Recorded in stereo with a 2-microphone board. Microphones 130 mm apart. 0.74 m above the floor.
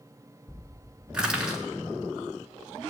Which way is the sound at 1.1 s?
5° right (ahead or behind).